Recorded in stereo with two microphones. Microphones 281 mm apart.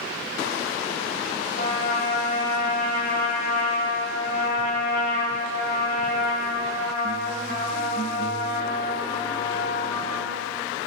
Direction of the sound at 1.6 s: 50° left (ahead or behind).